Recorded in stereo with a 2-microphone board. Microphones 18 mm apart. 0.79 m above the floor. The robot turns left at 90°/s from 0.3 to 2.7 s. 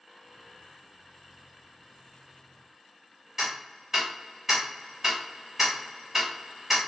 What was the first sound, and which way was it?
Ticking, 20° right (ahead or behind).